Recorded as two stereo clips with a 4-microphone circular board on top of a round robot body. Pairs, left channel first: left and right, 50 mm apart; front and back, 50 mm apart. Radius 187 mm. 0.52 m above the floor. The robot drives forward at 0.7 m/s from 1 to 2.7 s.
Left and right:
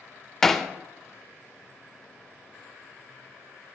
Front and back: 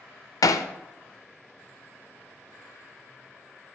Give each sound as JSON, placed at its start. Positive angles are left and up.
{"t": 0.4, "sound": "hammering", "azimuth_deg": 5, "distance_m": 0.6}